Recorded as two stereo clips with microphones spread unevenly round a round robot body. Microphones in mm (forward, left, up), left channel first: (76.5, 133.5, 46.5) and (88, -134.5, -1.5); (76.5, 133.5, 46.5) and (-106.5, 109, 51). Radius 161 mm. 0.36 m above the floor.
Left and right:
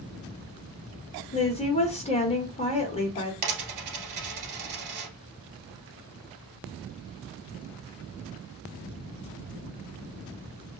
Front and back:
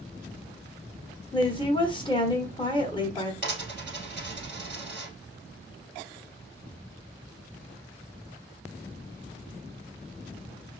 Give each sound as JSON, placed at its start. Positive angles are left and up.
{"t": 1.3, "sound": "a woman speaking", "azimuth_deg": 30, "distance_m": 1.3}
{"t": 3.4, "sound": "a dropped coin", "azimuth_deg": -85, "distance_m": 1.8}